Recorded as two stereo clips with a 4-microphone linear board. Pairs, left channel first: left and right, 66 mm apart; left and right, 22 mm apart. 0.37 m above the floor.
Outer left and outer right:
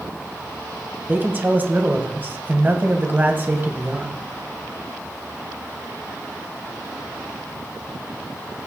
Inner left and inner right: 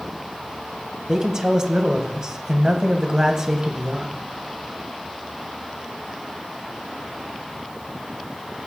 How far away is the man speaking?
About 2 m.